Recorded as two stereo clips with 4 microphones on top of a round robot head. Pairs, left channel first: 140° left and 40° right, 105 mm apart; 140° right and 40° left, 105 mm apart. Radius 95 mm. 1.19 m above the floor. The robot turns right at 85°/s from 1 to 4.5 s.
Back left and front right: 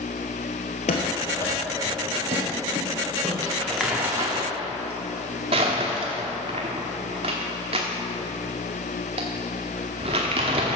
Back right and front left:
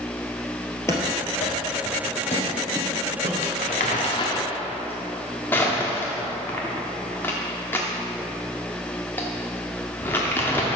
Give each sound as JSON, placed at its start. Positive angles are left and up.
{"t": 0.9, "sound": "running footsteps", "azimuth_deg": 155, "distance_m": 1.9}
{"t": 3.4, "sound": "crumpling", "azimuth_deg": -160, "distance_m": 0.9}